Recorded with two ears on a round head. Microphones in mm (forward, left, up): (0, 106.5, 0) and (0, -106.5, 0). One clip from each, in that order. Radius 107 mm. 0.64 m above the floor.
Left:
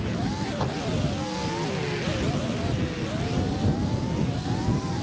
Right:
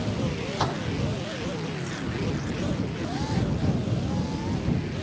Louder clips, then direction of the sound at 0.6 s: Right 3 dB; 40° right (ahead or behind).